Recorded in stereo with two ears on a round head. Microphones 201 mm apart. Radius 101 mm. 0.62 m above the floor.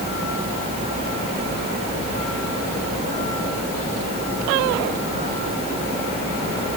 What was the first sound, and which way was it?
Only background noise.